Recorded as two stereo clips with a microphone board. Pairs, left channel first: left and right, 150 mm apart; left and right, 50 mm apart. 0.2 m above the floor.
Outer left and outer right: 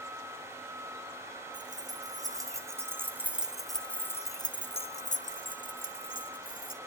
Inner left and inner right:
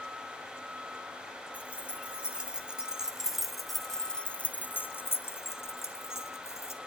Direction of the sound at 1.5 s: 25° right (ahead or behind).